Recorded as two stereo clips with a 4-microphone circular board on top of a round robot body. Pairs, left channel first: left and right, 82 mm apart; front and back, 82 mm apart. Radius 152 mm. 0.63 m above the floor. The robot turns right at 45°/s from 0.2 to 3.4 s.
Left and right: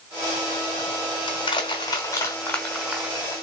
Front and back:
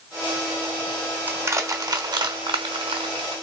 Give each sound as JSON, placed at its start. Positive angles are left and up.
{"t": 1.3, "sound": "crushing", "azimuth_deg": 110, "distance_m": 1.0}